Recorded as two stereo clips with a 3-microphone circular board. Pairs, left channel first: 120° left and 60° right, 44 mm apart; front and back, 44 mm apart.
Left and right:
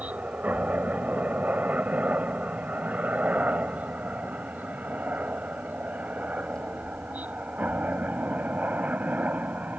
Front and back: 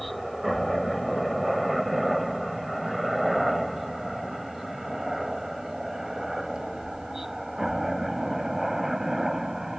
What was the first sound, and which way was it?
A helicopter, 85° right.